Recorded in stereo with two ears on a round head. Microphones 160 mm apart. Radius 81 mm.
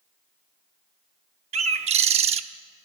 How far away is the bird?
About 0.9 m.